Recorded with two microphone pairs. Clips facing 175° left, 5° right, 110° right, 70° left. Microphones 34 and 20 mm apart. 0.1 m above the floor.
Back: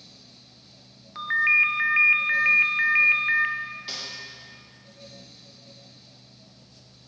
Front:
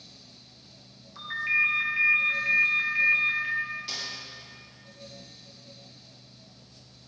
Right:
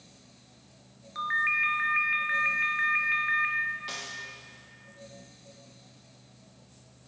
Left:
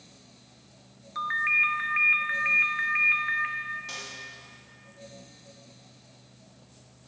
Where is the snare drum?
120° right, 2.5 m.